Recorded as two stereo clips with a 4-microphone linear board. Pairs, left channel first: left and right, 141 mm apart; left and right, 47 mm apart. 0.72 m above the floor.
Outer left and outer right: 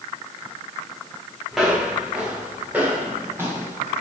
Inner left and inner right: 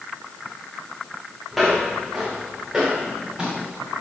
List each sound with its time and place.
1.5 s footsteps: 5° right (ahead or behind), 7.5 m; by 4.0 s 20° right (ahead or behind), 8 m